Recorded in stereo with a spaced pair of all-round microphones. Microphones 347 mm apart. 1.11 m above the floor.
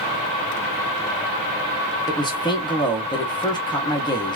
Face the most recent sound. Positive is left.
turn(degrees=10)  # may be behind; listen again after turning